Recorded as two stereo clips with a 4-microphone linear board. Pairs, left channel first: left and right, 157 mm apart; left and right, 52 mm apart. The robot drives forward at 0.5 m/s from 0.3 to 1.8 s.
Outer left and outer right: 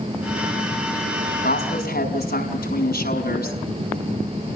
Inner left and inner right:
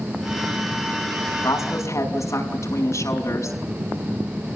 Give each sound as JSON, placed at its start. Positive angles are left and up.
{"t": 1.4, "sound": "a woman speaking", "side_deg": 85, "distance_m": 5.5}